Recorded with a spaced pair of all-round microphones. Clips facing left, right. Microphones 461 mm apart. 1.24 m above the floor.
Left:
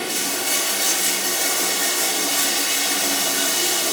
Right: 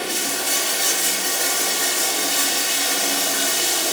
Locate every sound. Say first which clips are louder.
0.0 s running water: even; 25° left (ahead or behind), 1.8 m